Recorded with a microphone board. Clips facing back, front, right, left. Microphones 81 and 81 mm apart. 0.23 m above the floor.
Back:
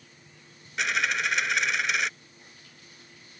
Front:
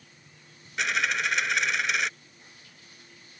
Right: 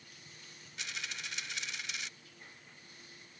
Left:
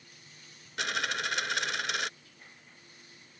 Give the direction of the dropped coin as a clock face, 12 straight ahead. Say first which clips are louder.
Even, left 12 dB; 9 o'clock.